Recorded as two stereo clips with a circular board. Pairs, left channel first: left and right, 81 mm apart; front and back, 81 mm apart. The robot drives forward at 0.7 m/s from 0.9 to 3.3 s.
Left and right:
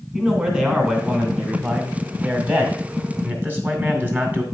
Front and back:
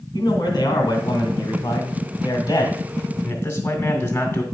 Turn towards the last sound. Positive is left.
turn(degrees=-35)